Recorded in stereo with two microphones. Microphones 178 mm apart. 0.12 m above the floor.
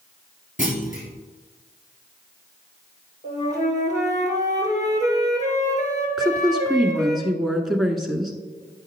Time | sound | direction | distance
0.6 | a clunk | 45° left (ahead or behind) | 1.8 m
3.2 | a flute | 40° left (ahead or behind) | 2 m
6.2 | a woman speaking | centre (ahead or behind) | 1.1 m